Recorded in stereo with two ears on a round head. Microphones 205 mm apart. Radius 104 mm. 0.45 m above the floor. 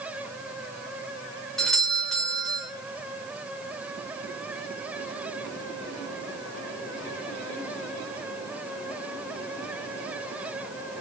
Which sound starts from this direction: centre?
A doorbell, at 1.6 s.